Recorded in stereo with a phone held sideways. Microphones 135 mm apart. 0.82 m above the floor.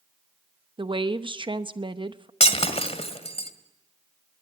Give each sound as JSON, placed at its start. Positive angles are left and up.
{"t": 0.8, "sound": "a woman speaking", "side_deg": -35, "distance_m": 0.9}
{"t": 2.4, "sound": "breaking glass", "side_deg": 45, "distance_m": 1.9}